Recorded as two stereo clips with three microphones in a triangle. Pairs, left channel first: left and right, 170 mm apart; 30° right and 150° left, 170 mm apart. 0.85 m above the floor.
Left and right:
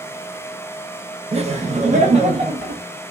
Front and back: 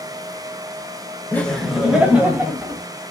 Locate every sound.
1.3 s laughter: 105° right, 0.5 m; by 2.8 s 135° right, 1.4 m